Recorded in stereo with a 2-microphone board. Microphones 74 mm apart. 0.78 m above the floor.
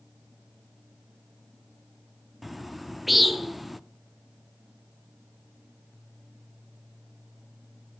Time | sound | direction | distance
2.4 | a bird | centre (ahead or behind) | 0.5 m